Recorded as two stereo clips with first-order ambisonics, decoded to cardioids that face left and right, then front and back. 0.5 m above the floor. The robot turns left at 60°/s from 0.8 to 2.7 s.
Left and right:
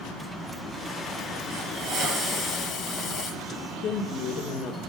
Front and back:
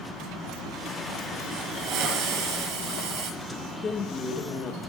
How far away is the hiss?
About 5.5 m.